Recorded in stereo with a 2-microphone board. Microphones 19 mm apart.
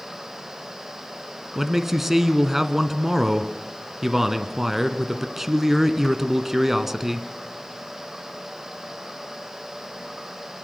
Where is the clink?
No clink in this recording.